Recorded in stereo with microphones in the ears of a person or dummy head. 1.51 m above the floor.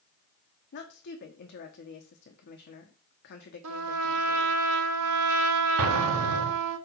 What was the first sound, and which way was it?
A woman speaking, 60° left (ahead or behind).